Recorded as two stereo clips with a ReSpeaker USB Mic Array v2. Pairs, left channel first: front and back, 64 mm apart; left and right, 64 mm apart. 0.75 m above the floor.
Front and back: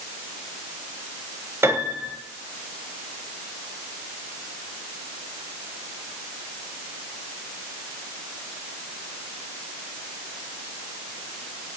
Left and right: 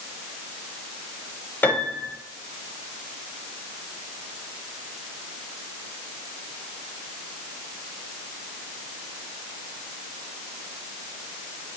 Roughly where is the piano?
Behind left.